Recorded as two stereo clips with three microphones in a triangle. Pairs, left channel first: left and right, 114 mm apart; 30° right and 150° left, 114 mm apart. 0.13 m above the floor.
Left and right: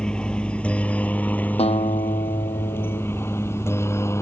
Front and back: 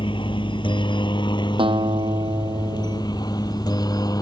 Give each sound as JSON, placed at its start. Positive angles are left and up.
{"t": 0.0, "sound": "a helicopter", "azimuth_deg": 10}
{"t": 1.6, "sound": "a guitar", "azimuth_deg": 110}